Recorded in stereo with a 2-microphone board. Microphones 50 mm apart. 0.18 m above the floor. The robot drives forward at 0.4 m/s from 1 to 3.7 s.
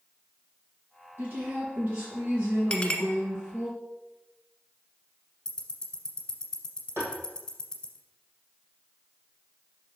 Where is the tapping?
55° right (ahead or behind), 3 m.